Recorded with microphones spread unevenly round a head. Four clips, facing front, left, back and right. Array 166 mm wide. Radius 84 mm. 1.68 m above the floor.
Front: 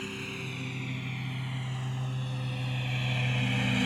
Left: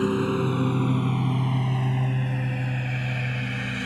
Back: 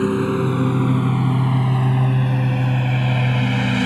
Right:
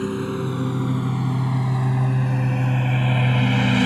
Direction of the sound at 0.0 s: 175° left.